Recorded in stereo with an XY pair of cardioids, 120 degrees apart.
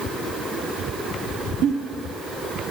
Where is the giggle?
65° right, 1.3 m.